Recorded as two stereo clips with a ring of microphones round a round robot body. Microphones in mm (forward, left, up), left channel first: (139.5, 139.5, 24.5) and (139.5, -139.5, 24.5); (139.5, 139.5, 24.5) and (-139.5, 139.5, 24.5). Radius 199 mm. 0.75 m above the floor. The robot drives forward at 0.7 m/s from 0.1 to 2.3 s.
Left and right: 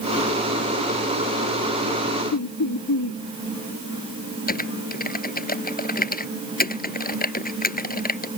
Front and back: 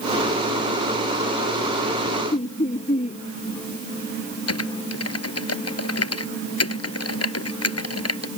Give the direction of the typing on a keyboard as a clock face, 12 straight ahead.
11 o'clock.